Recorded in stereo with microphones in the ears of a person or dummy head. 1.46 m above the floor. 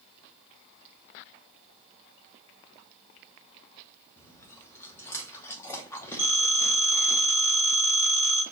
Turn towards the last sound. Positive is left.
turn(degrees=15)  # may be behind; listen again after turning